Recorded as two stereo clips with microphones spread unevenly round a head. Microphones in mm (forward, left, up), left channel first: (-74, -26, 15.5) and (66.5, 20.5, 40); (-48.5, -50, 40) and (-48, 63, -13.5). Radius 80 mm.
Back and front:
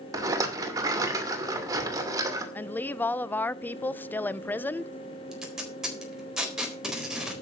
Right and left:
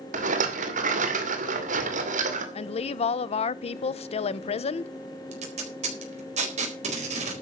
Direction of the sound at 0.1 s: 90° left.